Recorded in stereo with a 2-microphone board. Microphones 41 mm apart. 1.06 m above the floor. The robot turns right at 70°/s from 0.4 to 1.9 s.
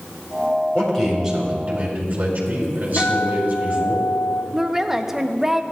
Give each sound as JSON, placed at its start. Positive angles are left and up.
{"t": 0.8, "sound": "a man speaking", "azimuth_deg": 150, "distance_m": 4.5}
{"t": 3.0, "sound": "a guitar", "side_deg": 75, "distance_m": 2.5}
{"t": 4.5, "sound": "a woman speaking", "side_deg": -10, "distance_m": 0.7}